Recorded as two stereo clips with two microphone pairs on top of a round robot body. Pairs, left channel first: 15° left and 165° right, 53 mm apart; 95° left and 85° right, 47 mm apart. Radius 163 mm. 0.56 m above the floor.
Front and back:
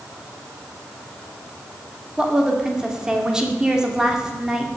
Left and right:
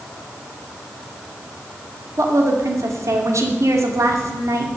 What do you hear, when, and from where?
2.2 s a woman speaking: 85° right, 2.5 m